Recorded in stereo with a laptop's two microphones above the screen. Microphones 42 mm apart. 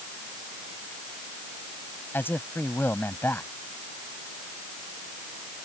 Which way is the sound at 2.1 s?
60° left (ahead or behind).